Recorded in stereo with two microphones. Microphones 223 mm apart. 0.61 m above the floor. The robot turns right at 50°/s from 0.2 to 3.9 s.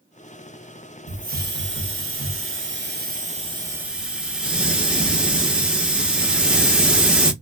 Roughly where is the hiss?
Behind right.